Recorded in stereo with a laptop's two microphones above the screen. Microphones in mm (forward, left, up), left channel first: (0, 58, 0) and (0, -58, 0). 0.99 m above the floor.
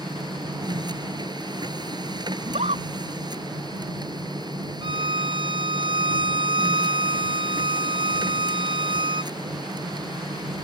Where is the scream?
75° right (ahead or behind).